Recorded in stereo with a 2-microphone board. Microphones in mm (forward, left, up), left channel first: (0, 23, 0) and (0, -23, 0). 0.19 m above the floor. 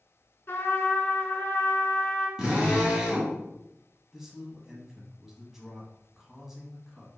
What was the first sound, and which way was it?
A trumpet, 55° left (ahead or behind).